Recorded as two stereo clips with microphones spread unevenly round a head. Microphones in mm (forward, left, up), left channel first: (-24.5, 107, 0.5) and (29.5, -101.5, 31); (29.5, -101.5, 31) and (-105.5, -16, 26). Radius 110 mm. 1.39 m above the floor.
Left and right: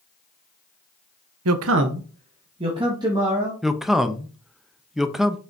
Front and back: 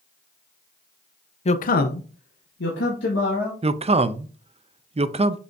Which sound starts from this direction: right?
A man speaking, at 1.4 s.